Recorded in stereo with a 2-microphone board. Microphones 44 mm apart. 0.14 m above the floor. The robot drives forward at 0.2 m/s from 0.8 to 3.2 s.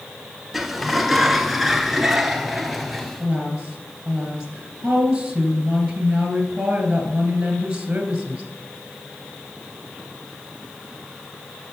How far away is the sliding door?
About 0.7 m.